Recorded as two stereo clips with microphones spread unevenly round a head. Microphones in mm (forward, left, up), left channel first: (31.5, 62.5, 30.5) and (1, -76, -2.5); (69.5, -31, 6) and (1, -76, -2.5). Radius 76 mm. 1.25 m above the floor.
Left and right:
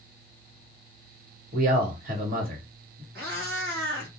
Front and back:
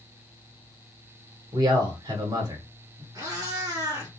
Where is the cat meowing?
120° right, 1.8 m.